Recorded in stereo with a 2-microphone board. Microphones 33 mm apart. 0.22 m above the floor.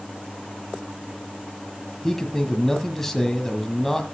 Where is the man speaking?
10° left (ahead or behind), 1.6 m.